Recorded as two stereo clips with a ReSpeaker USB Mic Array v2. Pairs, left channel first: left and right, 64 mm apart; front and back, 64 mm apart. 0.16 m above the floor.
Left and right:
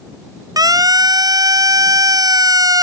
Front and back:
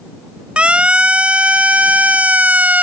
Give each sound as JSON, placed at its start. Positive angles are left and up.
{"t": 0.6, "sound": "a siren", "azimuth_deg": -105}